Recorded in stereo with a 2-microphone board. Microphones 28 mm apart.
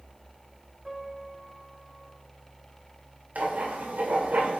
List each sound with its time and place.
0.8 s a piano: 25° right (ahead or behind), 4.5 m
3.4 s writing: 85° right, 2.5 m